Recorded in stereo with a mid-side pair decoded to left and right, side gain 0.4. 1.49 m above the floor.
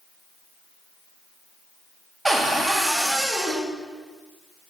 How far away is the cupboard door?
About 1.2 m.